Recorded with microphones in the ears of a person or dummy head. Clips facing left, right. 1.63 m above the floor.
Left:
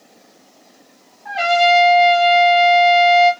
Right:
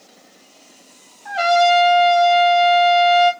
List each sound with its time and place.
1.2 s a trumpet: 5° right (ahead or behind), 1.6 m